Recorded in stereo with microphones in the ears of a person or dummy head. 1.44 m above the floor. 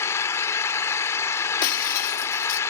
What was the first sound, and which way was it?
An engine running, 10° left (ahead or behind).